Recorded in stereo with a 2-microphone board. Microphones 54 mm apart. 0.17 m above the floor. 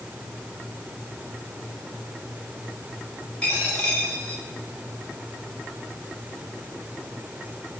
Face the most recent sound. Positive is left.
turn(degrees=20)  # may be behind; listen again after turning